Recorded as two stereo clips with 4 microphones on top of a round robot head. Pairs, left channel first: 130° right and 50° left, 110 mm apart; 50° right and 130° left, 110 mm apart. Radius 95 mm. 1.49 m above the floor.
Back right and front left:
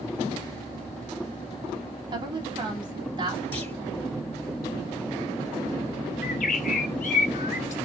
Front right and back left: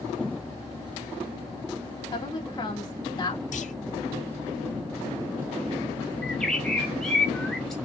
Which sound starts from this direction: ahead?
A woman speaking, at 2.1 s.